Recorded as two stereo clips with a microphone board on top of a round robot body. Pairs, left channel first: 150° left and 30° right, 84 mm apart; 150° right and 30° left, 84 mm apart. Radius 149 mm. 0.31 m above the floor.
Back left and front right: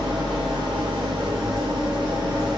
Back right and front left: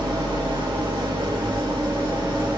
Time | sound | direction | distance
0.0 | an engine running | straight ahead | 5 m